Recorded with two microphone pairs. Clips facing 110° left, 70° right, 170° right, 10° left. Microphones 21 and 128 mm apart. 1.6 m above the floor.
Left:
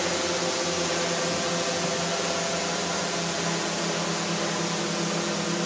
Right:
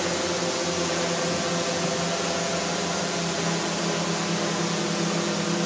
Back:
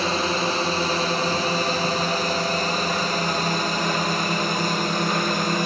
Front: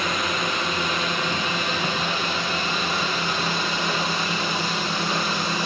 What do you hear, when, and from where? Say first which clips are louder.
0.0 s a drone: even, back 3 dB; 170° right; by 5.7 s 155° right